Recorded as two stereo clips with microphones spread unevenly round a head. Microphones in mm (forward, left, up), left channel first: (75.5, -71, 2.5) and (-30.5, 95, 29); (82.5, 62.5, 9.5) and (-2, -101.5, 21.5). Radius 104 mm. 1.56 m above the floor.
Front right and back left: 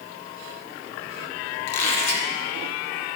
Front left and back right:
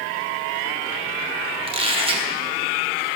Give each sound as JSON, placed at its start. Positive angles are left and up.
{"t": 1.7, "sound": "a squeak", "azimuth_deg": -60, "distance_m": 1.2}